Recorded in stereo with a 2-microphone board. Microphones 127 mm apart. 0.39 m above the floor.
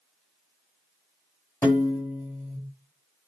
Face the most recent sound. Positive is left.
turn(degrees=20)  # may be behind; listen again after turning